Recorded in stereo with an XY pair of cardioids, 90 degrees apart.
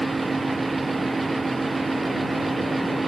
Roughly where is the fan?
Ahead.